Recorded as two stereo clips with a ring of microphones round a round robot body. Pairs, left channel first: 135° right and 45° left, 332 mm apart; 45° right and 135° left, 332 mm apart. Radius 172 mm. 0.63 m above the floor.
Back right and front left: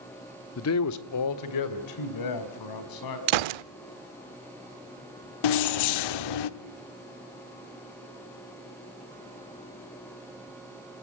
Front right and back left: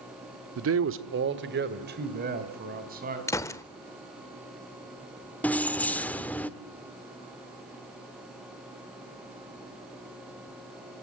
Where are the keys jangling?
130° right, 1.0 m.